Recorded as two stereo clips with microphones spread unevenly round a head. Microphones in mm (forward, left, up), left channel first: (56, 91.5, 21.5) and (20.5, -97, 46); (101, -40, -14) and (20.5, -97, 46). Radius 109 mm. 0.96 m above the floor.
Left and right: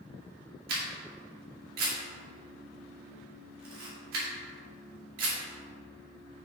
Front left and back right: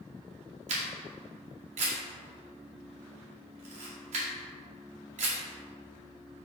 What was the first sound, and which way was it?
A camera shutter, 150° right.